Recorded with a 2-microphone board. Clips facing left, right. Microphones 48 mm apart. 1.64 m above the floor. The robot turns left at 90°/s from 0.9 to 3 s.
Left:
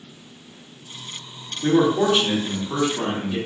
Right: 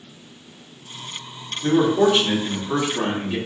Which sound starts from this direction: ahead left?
A man speaking, at 1.6 s.